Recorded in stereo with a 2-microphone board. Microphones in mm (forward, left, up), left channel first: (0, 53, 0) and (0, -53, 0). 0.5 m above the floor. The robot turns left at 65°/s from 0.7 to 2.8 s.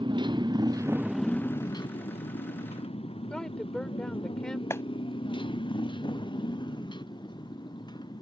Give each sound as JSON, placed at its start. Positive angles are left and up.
{"t": 0.0, "sound": "a motorcycle", "side_deg": -50}
{"t": 3.3, "sound": "a woman speaking", "side_deg": 10}
{"t": 4.7, "sound": "a clap", "side_deg": 25}